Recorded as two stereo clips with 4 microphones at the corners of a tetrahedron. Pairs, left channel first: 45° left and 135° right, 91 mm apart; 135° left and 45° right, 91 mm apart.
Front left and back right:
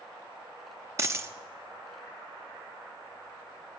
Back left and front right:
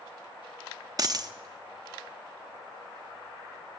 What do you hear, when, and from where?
1.0 s a dropped coin: 85° right, 0.5 m